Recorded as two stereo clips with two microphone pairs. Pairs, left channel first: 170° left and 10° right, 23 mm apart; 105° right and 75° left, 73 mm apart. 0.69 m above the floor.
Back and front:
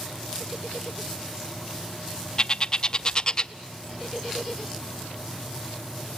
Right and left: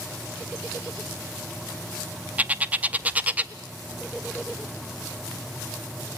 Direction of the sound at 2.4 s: 135° left.